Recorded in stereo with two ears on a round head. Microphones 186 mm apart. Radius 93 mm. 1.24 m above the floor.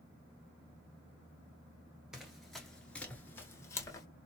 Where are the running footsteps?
5° right (ahead or behind), 1.4 m; by 4.1 s 20° left (ahead or behind), 1.3 m.